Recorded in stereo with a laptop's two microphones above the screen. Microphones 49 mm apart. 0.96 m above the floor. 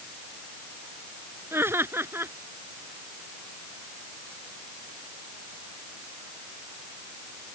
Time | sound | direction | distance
1.5 | laughter | 55° right (ahead or behind) | ?